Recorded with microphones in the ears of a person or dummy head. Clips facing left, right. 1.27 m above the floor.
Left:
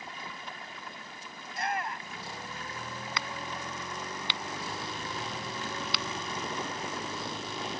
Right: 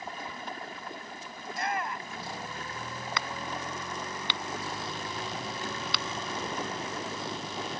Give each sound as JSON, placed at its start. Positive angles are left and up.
{"t": 0.0, "sound": "running water", "side_deg": -35}
{"t": 1.4, "sound": "a shout", "side_deg": -60}
{"t": 3.2, "sound": "a crack", "side_deg": -45}